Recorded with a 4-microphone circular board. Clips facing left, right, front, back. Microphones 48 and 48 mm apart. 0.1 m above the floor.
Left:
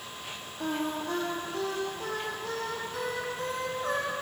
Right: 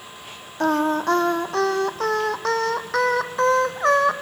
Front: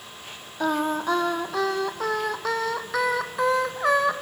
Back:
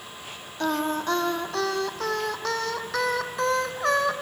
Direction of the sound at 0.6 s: 80° right.